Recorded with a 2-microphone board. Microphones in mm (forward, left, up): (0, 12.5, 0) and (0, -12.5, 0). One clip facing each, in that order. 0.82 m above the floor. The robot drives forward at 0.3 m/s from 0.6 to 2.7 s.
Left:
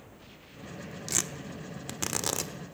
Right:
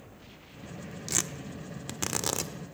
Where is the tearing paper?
5° right (ahead or behind), 1.2 m; by 2.5 s centre (ahead or behind), 1.6 m.